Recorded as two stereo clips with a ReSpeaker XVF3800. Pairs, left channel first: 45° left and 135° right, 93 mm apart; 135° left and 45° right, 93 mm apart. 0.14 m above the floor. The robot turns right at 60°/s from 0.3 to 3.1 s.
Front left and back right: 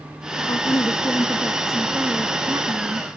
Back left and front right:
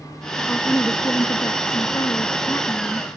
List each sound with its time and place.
0.5 s a woman speaking: 60° left; by 3.1 s 145° right